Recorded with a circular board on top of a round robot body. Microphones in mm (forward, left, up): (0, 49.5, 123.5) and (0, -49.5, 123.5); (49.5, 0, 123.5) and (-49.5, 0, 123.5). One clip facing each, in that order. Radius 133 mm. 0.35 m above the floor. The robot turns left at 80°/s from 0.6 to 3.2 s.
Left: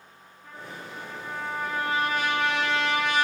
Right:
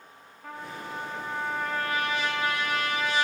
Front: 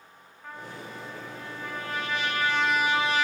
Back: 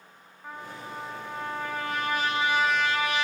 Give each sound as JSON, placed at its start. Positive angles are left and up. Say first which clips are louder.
{"t": 0.4, "sound": "a trumpet", "louder": "right 3 dB, back 1 dB", "azimuth_deg": -100, "distance_m": 5.5}